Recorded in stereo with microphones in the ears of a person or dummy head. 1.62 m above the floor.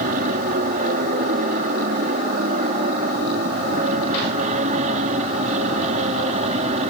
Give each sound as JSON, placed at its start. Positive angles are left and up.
{"t": 0.0, "sound": "an aircraft", "side_deg": -50}